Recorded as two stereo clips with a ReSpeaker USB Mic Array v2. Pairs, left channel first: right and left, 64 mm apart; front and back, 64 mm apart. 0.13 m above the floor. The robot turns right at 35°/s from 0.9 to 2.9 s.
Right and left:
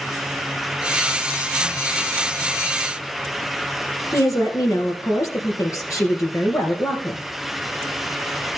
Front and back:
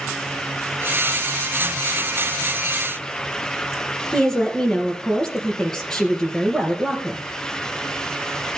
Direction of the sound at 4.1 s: 80° right.